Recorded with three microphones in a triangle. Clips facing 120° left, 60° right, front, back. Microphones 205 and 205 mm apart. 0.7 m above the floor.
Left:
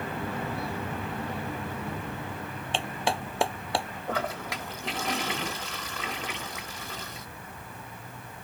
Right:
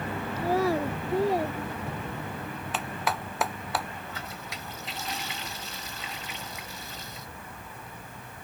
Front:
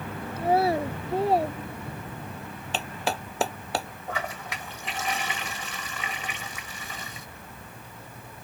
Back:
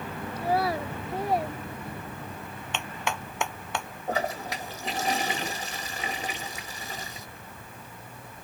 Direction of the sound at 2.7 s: 55° left.